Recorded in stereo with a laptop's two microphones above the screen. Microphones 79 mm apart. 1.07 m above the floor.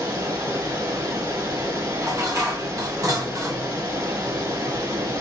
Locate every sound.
0.0 s running water: 55° right (ahead or behind), 2 m
2.0 s dishes clattering: 40° right (ahead or behind), 0.7 m